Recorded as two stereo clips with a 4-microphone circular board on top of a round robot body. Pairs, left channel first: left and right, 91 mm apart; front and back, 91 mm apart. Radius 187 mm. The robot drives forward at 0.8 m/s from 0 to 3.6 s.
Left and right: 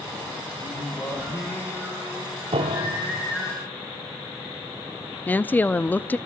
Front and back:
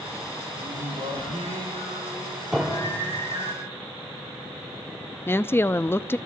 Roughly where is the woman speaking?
Ahead left.